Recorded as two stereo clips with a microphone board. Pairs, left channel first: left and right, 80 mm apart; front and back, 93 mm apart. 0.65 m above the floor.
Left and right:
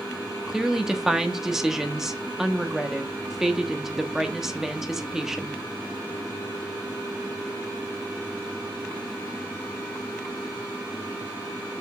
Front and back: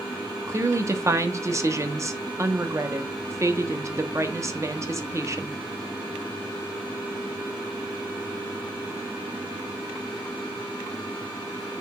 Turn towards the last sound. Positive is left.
turn(degrees=-170)